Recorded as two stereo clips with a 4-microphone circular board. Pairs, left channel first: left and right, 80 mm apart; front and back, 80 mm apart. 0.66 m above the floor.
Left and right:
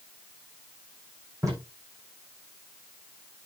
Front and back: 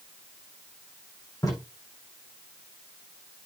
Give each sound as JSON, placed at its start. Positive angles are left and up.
{"t": 1.4, "sound": "tape being pulled", "azimuth_deg": -45, "distance_m": 9.0}